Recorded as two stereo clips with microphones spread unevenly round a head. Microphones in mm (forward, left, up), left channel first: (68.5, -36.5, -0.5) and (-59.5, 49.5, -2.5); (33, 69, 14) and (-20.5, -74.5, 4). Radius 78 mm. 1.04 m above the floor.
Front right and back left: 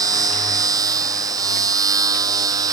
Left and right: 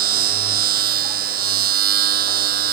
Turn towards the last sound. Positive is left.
turn(degrees=-145)